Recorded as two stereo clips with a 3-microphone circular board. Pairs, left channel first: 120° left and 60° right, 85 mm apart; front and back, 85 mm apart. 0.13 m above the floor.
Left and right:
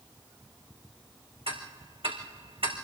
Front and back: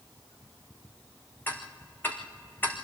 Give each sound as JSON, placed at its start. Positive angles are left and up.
{"t": 1.5, "sound": "ticking", "azimuth_deg": -70, "distance_m": 3.5}